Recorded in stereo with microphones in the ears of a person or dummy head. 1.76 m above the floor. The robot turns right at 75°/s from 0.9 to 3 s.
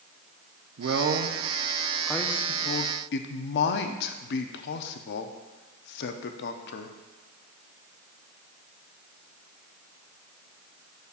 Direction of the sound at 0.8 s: 70° right (ahead or behind).